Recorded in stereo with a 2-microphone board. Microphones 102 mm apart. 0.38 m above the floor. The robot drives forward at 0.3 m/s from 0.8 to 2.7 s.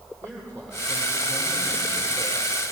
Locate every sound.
0.2 s a man speaking: 10° left (ahead or behind), 9.5 m; by 2.6 s 15° left (ahead or behind), 9 m